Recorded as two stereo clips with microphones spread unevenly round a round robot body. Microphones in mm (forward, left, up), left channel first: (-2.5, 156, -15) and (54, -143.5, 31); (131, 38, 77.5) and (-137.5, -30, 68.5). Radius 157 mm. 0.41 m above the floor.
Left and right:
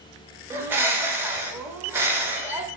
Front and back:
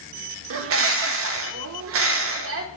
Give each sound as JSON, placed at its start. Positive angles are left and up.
{"t": 0.5, "sound": "a bird", "azimuth_deg": -170, "distance_m": 0.6}